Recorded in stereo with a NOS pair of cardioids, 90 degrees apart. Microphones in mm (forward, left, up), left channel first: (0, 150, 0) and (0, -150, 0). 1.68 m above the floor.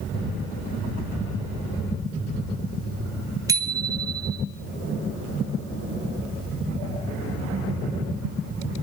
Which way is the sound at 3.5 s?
10° right.